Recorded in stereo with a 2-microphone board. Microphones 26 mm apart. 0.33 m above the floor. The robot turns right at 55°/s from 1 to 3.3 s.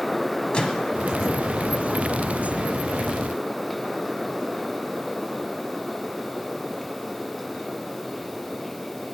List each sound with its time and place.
0.5 s a microwave: 40° left (ahead or behind), 1.6 m